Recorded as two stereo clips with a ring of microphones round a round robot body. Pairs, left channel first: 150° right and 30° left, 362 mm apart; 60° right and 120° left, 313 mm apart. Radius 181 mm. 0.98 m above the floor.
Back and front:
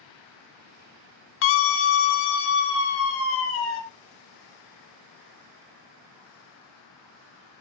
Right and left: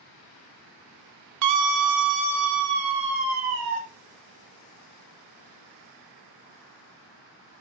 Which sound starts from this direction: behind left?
A scream, at 1.4 s.